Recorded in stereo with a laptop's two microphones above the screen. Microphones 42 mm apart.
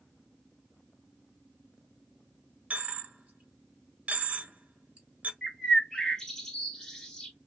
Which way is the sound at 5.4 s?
10° left (ahead or behind).